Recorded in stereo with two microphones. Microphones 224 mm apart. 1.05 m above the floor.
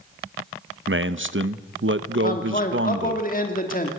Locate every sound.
0.9 s a man speaking: 55° right (ahead or behind), 0.9 m
2.2 s a man speaking: 35° left (ahead or behind), 2.5 m